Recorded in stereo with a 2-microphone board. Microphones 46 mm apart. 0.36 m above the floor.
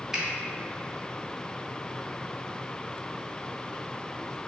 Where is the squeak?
No squeak in this recording.